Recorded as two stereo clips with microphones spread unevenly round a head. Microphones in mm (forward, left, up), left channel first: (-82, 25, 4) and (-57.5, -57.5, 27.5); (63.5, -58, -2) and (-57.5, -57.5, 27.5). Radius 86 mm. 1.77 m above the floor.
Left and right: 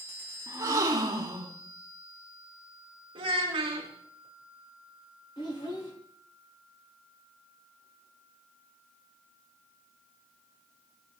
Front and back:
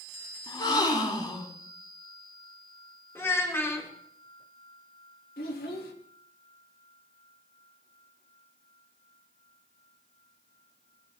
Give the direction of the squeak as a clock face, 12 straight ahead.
No squeak in this recording.